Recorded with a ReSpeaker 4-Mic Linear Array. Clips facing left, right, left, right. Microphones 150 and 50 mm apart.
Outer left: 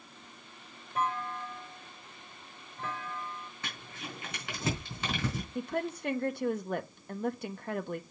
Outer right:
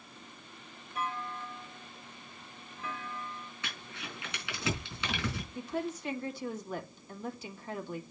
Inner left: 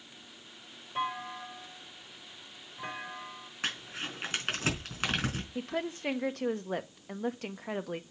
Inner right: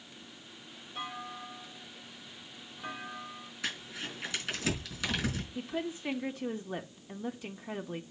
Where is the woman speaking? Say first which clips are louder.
Outer left 2 dB, inner left 1 dB; 60° left (ahead or behind), 1.1 m.